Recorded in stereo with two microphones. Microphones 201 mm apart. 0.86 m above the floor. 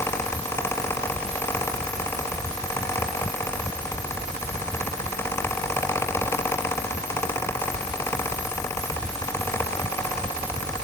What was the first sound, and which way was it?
Only background noise.